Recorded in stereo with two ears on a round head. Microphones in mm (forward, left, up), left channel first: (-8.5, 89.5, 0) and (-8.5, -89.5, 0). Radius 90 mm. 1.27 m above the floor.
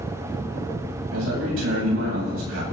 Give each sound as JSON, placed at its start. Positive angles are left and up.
{"t": 1.1, "sound": "a man speaking", "side_deg": -75, "distance_m": 9.5}